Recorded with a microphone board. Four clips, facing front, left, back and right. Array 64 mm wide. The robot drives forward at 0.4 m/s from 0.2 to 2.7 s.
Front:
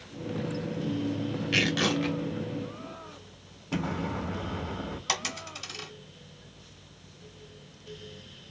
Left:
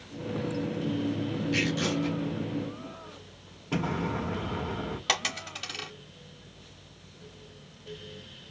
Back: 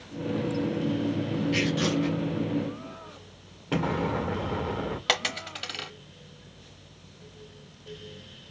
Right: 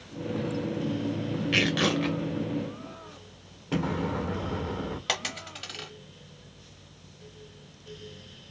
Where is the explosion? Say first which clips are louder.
Right 1 dB, back 5 dB; 170° right, 1.6 m.